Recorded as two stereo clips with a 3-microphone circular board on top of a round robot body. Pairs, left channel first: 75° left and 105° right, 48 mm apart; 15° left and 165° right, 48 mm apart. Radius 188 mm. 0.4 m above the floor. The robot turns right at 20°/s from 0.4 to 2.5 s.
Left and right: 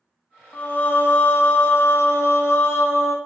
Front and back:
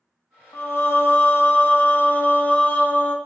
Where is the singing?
30° left, 0.7 m; by 3.2 s 70° left, 0.7 m.